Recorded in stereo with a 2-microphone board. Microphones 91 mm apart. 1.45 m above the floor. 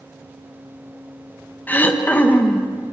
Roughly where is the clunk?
I don't hear a clunk.